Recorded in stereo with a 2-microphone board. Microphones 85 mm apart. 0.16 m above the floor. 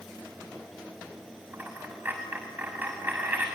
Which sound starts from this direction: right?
A dropped coin, at 1.5 s.